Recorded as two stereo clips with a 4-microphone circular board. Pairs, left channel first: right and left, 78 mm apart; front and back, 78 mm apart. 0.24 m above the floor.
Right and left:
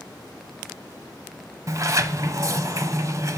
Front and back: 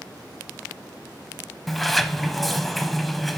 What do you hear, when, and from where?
1.7 s a sliding door: 85° left, 0.6 m